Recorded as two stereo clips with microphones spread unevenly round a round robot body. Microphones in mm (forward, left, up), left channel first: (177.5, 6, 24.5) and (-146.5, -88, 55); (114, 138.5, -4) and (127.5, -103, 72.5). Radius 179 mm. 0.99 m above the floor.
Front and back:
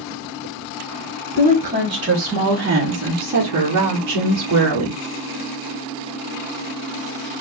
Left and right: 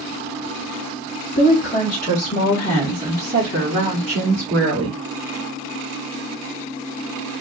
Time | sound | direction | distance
1.4 | a woman speaking | 110° left | 1.4 m